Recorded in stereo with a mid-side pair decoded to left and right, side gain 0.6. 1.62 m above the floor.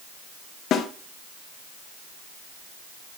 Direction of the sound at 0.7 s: 50° left.